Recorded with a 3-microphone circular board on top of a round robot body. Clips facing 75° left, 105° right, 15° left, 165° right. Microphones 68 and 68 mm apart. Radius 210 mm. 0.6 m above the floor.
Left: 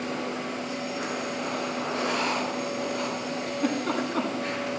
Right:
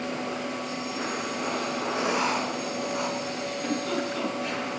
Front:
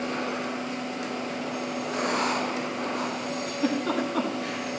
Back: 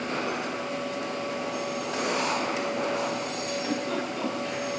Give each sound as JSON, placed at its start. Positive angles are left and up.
{"t": 1.9, "sound": "writing", "azimuth_deg": -30, "distance_m": 7.0}
{"t": 3.5, "sound": "a giggle", "azimuth_deg": 25, "distance_m": 8.5}